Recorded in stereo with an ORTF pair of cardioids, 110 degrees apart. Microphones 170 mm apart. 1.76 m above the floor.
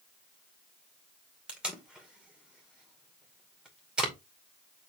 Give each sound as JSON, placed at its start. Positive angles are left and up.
{"t": 1.5, "sound": "tape being pulled", "azimuth_deg": -5, "distance_m": 2.5}